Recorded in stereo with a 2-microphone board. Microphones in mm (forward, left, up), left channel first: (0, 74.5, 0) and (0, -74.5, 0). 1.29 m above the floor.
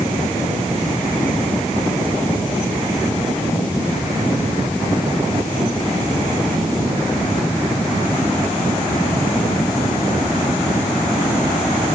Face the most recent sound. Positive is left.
No sound to turn to.